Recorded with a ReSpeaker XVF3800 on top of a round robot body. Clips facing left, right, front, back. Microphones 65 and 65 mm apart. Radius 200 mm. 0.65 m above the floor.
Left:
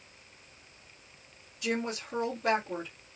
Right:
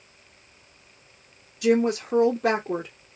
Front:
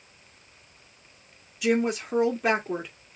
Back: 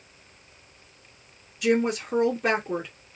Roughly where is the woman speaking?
Right.